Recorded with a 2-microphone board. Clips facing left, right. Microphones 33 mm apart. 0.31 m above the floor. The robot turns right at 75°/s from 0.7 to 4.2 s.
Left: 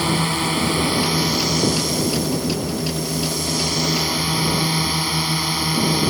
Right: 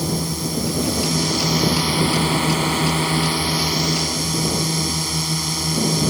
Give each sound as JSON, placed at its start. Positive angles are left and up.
{"t": 0.0, "sound": "a drone", "azimuth_deg": 125}